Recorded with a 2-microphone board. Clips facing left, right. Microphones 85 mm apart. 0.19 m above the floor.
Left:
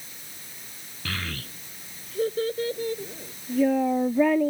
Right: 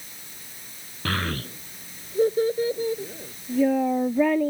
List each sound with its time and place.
1.1 s a child speaking: 50° right (ahead or behind); by 4.5 s centre (ahead or behind)